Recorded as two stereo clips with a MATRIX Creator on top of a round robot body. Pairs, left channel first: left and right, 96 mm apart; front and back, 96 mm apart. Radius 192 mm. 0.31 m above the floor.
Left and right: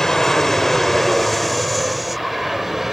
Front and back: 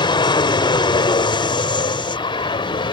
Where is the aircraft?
5° left; by 2.9 s 5° right.